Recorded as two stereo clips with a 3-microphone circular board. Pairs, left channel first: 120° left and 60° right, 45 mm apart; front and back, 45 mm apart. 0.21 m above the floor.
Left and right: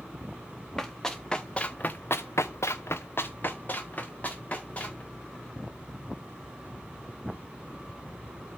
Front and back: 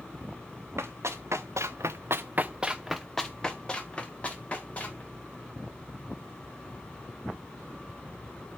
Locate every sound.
0.8 s running footsteps: 155° right, 2 m; by 5.0 s 60° left, 3.5 m